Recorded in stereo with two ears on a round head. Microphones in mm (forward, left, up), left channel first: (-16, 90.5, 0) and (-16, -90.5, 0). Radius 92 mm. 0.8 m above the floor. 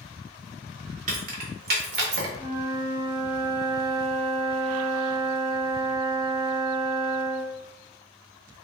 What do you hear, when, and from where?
1.1 s keys jangling: 40° right (ahead or behind), 1.6 m; by 2.3 s 60° right (ahead or behind), 1.6 m
2.4 s a flute: 20° right (ahead or behind), 1.5 m